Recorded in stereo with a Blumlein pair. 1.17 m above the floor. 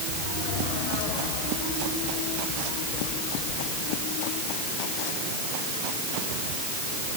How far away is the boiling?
No boiling in this recording.